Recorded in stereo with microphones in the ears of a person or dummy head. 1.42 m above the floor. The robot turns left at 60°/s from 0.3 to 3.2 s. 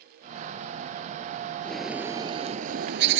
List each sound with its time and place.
1.6 s a bird: 10° left; by 3.2 s 85° right